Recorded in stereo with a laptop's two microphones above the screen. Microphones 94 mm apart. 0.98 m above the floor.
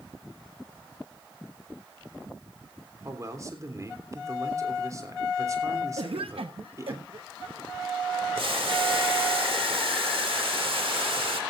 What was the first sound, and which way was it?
A man speaking, 35° right (ahead or behind).